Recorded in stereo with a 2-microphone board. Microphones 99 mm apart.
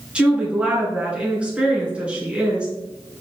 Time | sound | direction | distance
0.1 | a woman speaking | 10° right (ahead or behind) | 2.5 m